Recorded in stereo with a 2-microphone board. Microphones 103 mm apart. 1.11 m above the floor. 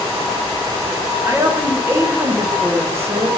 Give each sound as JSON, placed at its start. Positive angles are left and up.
{"t": 1.2, "sound": "a woman speaking", "side_deg": -25, "distance_m": 0.9}